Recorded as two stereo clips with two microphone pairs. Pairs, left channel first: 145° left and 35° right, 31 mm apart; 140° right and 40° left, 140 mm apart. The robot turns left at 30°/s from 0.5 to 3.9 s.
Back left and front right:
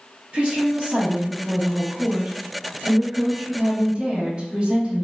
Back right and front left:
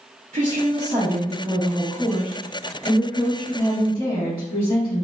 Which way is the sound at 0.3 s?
10° left.